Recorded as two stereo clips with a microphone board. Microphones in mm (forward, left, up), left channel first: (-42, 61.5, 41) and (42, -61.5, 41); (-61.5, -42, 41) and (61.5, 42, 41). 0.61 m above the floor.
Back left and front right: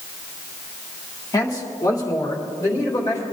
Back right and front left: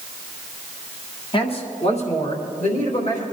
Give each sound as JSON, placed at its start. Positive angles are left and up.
{"t": 1.3, "sound": "a man speaking", "azimuth_deg": 180, "distance_m": 1.7}